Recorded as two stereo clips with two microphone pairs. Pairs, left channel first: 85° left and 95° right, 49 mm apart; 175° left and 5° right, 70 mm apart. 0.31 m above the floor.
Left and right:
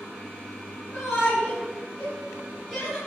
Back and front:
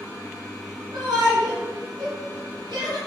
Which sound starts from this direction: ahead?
A shout, at 0.9 s.